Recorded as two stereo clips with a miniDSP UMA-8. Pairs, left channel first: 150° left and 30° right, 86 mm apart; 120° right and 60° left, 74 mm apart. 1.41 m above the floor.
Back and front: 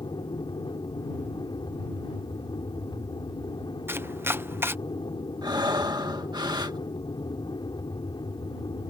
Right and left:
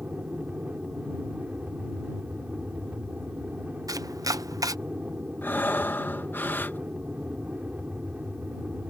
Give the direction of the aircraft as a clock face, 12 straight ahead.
8 o'clock.